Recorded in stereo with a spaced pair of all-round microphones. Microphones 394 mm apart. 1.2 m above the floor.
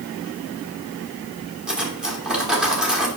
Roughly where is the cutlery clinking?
Centre.